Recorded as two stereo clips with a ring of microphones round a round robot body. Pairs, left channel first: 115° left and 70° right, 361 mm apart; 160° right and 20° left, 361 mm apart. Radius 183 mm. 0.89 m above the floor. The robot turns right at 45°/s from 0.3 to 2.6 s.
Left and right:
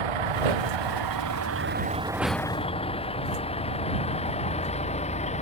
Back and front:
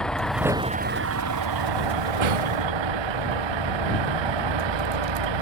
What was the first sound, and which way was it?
A vehicle, 70° right.